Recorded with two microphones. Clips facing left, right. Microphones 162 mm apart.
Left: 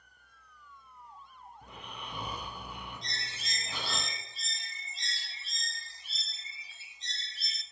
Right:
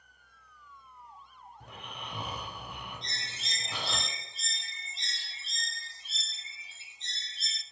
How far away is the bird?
About 0.5 m.